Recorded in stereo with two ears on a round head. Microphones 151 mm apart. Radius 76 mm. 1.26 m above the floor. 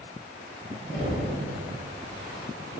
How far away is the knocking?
About 1.0 m.